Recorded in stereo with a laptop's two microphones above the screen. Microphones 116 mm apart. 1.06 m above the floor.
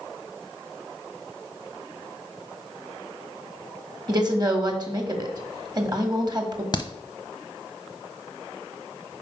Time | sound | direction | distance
4.1 | a woman speaking | 35° right (ahead or behind) | 1.6 m
6.7 | a crack | 35° left (ahead or behind) | 0.8 m